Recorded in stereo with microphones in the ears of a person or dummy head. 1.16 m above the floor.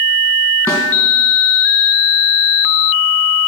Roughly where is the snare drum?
Centre.